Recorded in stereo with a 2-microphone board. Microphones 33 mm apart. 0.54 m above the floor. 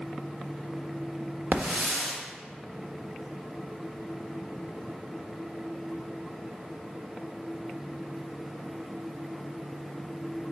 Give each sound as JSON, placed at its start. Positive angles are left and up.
{"t": 1.5, "sound": "a hiss", "side_deg": -55, "distance_m": 1.4}